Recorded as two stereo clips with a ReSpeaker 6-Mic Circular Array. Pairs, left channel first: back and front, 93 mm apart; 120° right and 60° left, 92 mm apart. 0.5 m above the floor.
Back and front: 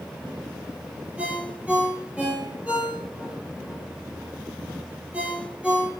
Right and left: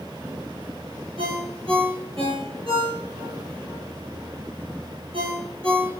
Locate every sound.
1.2 s a ringtone: 75° left, 5.5 m